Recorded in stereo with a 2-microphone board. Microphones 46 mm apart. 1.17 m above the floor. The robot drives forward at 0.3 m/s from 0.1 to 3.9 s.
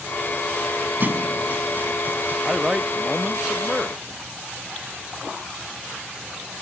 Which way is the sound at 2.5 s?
15° right (ahead or behind).